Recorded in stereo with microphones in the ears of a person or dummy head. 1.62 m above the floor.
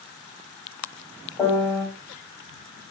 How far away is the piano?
About 2 m.